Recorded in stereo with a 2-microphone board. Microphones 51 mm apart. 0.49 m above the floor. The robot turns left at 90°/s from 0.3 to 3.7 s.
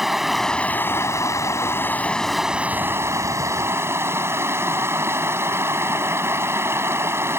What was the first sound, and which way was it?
Running water, 175° right.